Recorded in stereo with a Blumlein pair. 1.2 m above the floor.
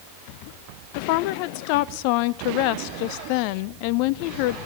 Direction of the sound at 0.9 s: 45° left.